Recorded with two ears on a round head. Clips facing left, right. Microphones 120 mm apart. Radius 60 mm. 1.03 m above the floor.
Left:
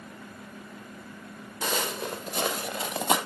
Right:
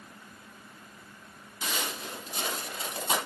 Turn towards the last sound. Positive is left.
turn(degrees=55)  # may be behind; listen again after turning